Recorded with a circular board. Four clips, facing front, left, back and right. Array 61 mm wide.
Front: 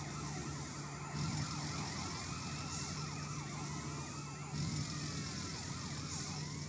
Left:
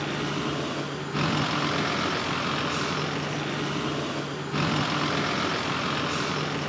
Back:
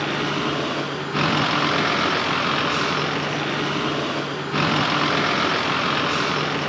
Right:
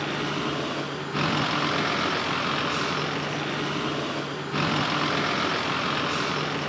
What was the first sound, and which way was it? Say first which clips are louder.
A vehicle: right 1 dB, back 22 dB; 175° right.